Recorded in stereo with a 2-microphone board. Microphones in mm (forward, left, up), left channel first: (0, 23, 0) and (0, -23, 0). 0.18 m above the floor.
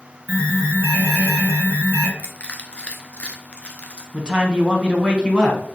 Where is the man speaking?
20° right (ahead or behind), 1.1 m.